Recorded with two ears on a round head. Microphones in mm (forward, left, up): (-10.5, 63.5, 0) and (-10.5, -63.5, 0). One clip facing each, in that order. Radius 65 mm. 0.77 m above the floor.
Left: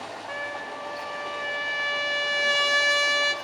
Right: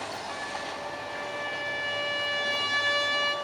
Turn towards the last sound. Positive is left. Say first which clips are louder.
# left 1 dB
turn(degrees=55)  # may be behind; listen again after turning